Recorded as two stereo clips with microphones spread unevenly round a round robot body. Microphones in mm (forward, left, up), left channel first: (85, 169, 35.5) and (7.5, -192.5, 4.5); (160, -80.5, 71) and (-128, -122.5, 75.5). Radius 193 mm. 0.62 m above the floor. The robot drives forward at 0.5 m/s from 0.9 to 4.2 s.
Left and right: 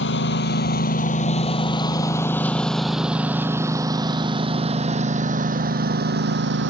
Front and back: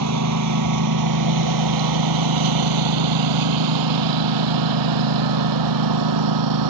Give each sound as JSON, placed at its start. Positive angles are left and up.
{"t": 0.0, "sound": "a lawn mower", "azimuth_deg": 140}